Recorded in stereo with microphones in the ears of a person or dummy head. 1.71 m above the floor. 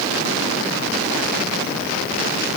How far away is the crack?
I don't hear a crack.